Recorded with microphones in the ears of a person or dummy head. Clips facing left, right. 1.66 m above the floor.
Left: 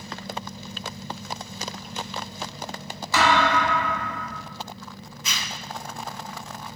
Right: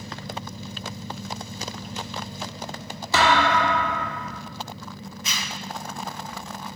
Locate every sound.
3.1 s a thud: 25° right (ahead or behind), 1.9 m
5.2 s a zipper: 75° left (ahead or behind), 1.8 m